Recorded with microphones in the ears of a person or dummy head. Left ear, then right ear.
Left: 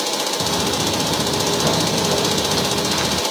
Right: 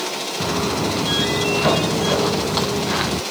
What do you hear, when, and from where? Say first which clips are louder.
0.4 s footsteps: right 2 dB; 30° right (ahead or behind); by 3.2 s 25° right (ahead or behind)